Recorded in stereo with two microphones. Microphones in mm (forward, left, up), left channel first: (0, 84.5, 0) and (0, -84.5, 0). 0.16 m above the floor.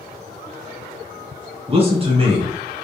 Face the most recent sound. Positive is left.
turn(degrees=-35)  # may be behind; listen again after turning